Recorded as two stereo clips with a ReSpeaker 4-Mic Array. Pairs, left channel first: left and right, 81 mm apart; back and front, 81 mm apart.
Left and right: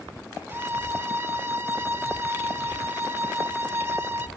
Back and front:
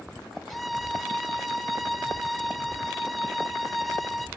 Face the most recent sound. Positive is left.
turn(degrees=-95)